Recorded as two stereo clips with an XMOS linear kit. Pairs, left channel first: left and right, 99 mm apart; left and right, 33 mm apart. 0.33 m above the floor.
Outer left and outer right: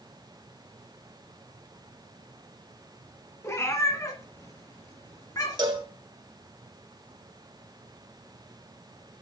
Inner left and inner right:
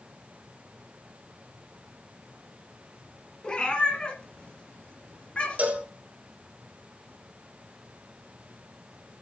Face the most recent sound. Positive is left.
turn(degrees=-45)  # may be behind; listen again after turning